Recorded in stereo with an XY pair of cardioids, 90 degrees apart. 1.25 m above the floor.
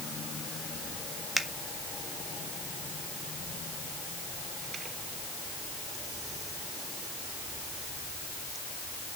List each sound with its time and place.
1.4 s a finger snap: 10° right, 1.5 m